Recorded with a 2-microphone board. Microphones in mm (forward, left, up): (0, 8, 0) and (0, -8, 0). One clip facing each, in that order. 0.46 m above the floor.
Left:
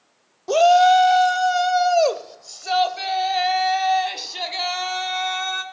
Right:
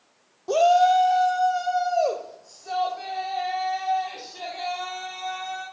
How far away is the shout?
About 0.7 m.